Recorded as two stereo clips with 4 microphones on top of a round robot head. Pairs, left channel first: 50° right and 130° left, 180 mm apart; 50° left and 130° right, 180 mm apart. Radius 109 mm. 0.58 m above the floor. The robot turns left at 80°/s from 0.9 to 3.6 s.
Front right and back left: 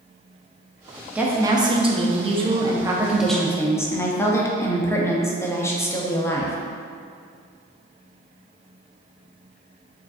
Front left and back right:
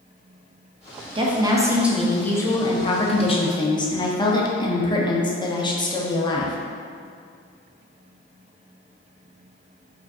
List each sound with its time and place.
1.1 s a woman speaking: 150° right, 0.6 m; by 6.6 s 10° left, 0.6 m